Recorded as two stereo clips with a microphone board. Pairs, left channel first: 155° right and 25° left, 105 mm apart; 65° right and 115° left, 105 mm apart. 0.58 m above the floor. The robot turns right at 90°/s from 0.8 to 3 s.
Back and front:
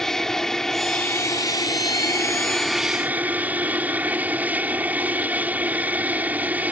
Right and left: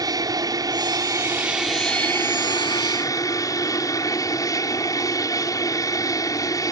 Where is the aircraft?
120° left; by 6.7 s 40° right.